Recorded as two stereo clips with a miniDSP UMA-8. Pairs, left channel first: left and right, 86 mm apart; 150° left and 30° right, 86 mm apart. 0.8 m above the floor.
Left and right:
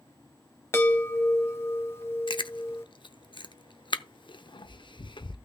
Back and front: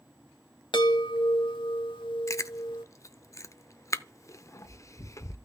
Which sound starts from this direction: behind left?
A chime, at 0.7 s.